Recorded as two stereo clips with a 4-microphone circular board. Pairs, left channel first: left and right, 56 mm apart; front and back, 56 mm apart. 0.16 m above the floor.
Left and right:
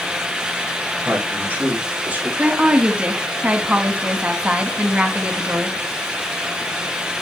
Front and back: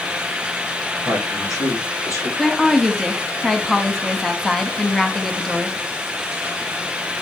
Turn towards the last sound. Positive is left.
turn(degrees=-80)